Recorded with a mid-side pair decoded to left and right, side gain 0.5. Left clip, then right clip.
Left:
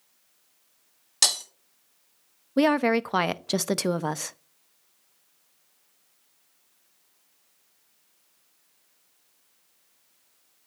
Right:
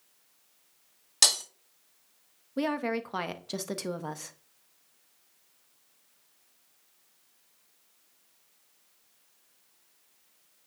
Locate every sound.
1.2 s breaking glass: straight ahead, 2 m
2.6 s a woman speaking: 50° left, 0.5 m